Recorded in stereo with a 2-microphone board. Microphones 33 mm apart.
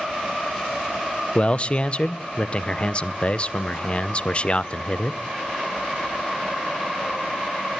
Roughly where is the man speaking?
Left.